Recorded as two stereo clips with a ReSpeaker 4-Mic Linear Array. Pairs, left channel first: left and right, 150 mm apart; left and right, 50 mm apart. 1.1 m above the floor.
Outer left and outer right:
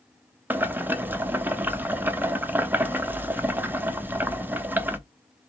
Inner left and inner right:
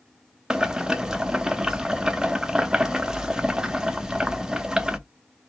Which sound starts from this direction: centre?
Boiling, at 0.5 s.